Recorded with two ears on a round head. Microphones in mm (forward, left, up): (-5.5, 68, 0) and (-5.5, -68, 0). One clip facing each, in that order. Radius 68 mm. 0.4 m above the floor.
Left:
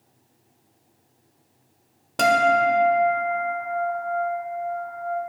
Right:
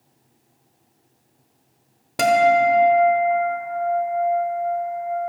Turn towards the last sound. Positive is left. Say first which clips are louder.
# right 3 dB
turn(degrees=-5)  # may be behind; listen again after turning